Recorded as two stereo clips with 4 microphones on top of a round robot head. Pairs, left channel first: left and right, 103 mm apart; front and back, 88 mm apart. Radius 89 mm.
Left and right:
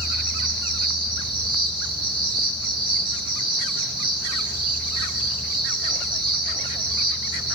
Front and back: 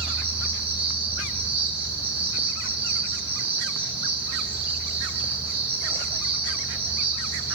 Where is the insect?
135° right, 2.5 m.